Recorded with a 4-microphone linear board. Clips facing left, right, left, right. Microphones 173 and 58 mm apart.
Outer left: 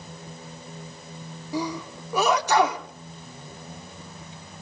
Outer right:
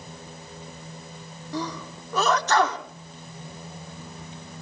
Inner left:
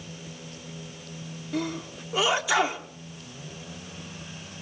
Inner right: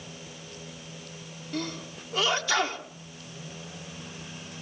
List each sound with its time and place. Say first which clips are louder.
1.5 s a sneeze: outer left 3 dB, inner left 4 dB; 10° left (ahead or behind), 1.1 m